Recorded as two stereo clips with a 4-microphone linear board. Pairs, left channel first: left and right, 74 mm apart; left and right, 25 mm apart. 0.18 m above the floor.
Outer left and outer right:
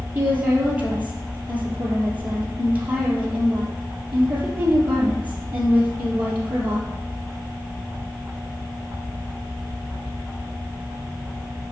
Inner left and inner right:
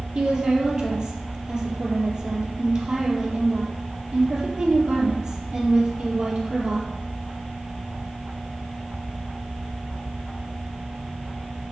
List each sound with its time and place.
0.1 s a woman speaking: 25° right (ahead or behind), 4 m